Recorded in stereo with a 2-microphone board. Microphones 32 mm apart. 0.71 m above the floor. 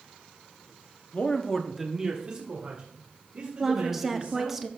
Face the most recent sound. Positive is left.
turn(degrees=-10)  # may be behind; listen again after turning